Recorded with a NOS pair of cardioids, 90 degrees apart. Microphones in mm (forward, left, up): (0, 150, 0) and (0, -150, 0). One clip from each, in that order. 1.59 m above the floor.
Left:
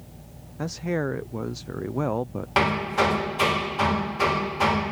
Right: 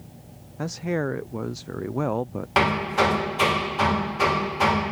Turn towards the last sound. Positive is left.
turn(degrees=-10)